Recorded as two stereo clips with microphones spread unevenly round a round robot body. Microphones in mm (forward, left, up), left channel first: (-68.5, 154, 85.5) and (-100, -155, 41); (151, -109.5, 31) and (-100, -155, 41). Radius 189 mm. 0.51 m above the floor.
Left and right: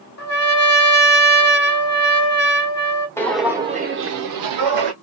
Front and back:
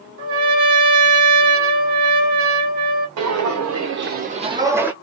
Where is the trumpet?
130° left, 1.2 m.